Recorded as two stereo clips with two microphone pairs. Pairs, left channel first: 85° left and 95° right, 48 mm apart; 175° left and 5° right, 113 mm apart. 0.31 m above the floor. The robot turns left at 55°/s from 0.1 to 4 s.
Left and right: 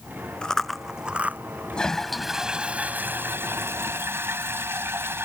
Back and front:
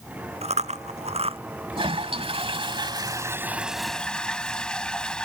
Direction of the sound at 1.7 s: 20° left.